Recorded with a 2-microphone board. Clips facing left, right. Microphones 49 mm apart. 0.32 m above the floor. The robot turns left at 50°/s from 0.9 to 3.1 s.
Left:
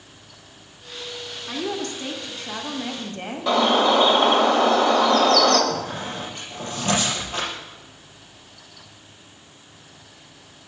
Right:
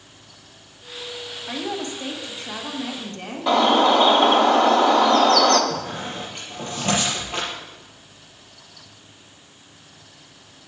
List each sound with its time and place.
1.5 s a woman speaking: 135° right, 1.7 m; by 3.5 s 145° left, 1.7 m
3.5 s a bird: 5° right (ahead or behind), 1.2 m
5.7 s a squeak: 35° right (ahead or behind), 5 m